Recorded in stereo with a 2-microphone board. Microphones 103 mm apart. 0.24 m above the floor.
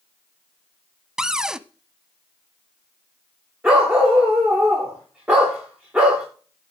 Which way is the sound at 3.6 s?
15° right (ahead or behind).